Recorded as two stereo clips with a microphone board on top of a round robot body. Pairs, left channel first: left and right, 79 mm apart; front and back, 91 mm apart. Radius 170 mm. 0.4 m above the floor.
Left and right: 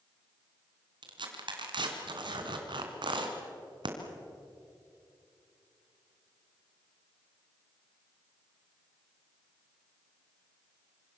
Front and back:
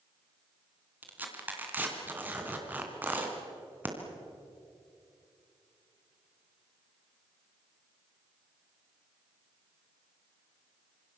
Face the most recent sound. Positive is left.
turn(degrees=-110)